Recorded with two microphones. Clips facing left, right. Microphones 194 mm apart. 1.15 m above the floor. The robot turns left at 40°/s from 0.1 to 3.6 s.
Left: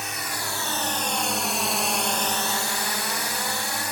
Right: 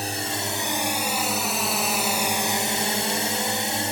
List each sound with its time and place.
0.0 s a drone: 35° right (ahead or behind); by 3.9 s 30° right (ahead or behind)